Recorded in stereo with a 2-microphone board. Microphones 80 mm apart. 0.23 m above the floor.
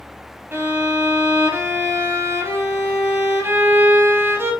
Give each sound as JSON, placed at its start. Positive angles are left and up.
{"t": 0.5, "sound": "a violin", "side_deg": -30, "distance_m": 0.7}